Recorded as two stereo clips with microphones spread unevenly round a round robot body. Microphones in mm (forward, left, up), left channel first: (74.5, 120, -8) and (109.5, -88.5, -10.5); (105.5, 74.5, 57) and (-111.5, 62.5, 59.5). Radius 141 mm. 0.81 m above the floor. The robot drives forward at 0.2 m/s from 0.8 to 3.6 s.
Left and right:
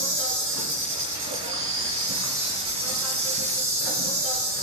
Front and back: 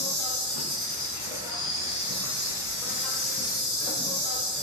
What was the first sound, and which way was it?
An insect, 50° right.